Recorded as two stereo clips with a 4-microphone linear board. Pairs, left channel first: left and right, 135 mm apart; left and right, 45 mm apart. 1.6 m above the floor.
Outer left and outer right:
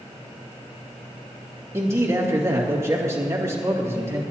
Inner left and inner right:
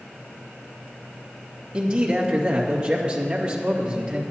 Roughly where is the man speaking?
Right.